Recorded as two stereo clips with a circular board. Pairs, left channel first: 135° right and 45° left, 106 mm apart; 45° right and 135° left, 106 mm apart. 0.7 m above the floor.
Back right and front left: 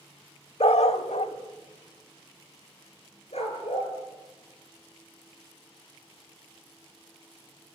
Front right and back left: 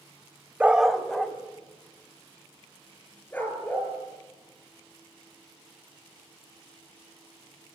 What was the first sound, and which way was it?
A dog barking, 145° right.